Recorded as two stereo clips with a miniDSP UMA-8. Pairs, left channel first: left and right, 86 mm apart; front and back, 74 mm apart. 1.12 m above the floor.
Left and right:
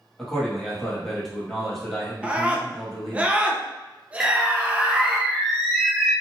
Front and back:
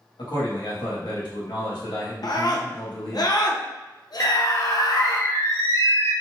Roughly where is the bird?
Ahead.